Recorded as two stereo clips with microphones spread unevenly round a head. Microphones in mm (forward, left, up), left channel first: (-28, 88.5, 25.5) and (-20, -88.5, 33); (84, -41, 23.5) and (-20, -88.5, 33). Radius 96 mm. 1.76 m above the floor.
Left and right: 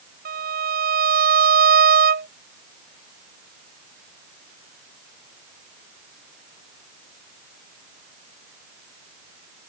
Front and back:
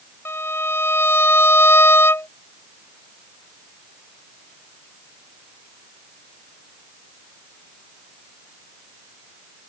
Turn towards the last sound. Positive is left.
turn(degrees=-45)